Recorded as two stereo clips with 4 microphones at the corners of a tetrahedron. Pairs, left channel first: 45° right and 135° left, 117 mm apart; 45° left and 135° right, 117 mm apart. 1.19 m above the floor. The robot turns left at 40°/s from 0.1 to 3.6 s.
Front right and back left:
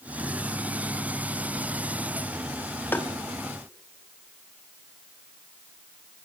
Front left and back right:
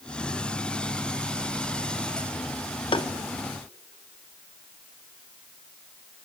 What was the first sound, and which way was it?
Tapping, 20° left.